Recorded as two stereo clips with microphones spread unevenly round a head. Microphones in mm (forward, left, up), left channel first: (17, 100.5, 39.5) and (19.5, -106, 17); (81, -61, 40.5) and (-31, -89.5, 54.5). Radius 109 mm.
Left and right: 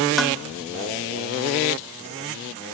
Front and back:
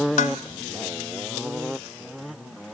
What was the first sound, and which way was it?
Dishes clattering, 5° left.